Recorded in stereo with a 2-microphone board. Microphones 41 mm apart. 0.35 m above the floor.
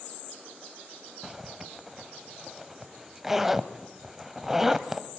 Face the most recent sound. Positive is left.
turn(degrees=-10)  # may be behind; listen again after turning